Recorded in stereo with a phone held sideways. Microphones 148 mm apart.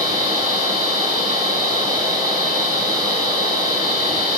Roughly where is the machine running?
Right.